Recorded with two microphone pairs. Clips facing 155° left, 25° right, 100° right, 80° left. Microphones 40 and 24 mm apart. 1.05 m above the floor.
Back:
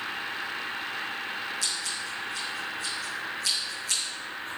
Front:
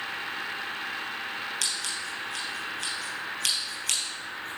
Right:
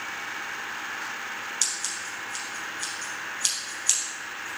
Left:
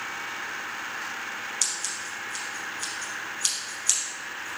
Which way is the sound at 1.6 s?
15° right.